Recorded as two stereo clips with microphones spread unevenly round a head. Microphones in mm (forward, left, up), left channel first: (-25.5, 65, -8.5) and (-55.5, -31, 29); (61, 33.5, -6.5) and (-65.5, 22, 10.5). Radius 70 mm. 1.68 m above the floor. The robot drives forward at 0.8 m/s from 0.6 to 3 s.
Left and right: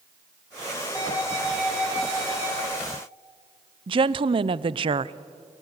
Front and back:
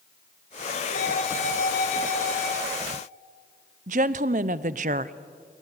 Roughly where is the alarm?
Ahead.